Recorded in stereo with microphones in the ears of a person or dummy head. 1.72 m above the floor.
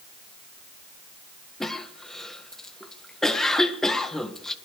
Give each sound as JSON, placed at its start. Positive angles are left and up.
{"t": 1.6, "sound": "a cough", "side_deg": 15, "distance_m": 1.2}